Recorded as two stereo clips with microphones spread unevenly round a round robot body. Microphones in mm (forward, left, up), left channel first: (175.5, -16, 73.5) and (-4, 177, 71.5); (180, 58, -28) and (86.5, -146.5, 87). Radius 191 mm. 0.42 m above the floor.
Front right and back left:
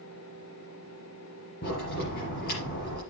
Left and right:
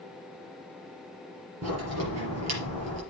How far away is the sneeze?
No sneeze in this recording.